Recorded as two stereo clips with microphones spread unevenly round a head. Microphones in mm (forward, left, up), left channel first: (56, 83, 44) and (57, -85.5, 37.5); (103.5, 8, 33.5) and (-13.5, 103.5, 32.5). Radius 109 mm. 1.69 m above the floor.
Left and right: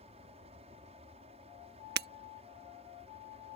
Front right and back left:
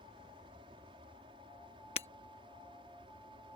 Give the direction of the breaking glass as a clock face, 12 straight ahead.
3 o'clock.